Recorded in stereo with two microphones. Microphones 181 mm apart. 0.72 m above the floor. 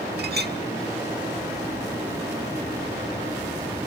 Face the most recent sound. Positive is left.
turn(degrees=-65)  # may be behind; listen again after turning